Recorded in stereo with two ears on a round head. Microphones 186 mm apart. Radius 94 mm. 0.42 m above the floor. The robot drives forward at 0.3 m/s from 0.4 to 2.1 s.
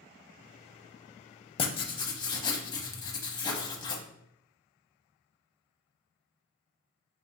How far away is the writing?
About 0.5 m.